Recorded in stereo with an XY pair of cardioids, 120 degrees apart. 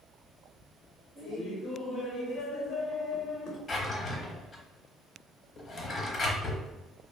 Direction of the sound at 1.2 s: 65° left.